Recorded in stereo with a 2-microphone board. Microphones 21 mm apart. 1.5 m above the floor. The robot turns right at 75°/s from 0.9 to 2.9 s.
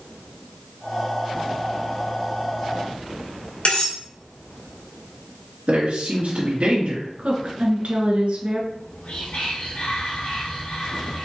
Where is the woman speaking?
70° right (ahead or behind), 1.7 m.